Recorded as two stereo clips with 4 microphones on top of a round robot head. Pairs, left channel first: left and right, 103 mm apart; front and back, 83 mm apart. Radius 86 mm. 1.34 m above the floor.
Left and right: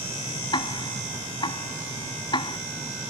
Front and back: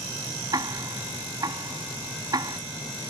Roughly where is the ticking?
Behind left.